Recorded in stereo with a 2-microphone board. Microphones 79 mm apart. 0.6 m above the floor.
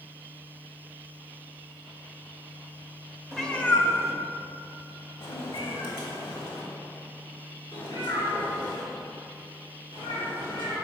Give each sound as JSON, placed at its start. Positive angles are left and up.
{"t": 3.3, "sound": "a cat meowing", "side_deg": 5, "distance_m": 0.8}